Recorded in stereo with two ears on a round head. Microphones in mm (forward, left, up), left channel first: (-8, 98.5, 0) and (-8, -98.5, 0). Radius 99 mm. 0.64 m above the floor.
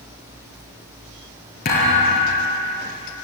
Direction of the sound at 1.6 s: 45° left (ahead or behind).